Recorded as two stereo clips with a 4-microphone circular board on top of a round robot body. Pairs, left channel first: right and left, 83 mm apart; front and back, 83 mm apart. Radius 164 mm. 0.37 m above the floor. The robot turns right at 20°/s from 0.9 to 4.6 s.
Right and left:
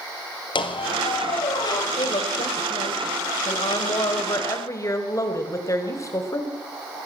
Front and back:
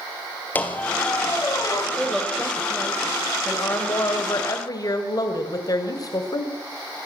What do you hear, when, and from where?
0.6 s a squeak: 70° right, 3 m; by 1.9 s 55° right, 3 m
2.0 s a woman speaking: 95° right, 2.5 m; by 6.5 s 40° right, 2.5 m